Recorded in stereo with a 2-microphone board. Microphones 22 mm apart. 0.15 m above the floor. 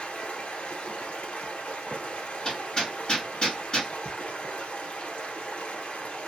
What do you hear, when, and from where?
0.0 s running water: 60° left (ahead or behind), 0.9 m
2.5 s hammering: 25° left (ahead or behind), 1.8 m